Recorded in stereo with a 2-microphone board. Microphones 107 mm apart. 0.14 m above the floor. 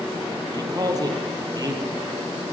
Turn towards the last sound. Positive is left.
turn(degrees=-35)  # may be behind; listen again after turning